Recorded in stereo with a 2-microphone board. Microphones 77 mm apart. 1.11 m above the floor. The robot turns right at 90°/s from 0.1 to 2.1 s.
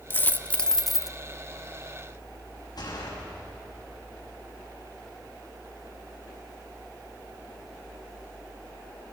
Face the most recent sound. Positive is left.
turn(degrees=60)  # may be behind; listen again after turning